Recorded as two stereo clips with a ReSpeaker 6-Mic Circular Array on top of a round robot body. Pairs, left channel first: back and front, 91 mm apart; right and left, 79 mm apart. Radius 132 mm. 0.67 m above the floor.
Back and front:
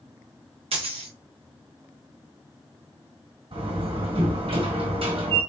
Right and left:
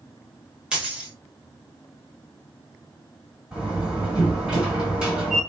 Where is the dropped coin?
10° left, 1.3 m.